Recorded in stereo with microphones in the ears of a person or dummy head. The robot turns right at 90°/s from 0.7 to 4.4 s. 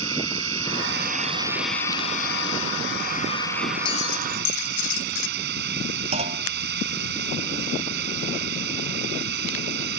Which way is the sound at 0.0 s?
85° right.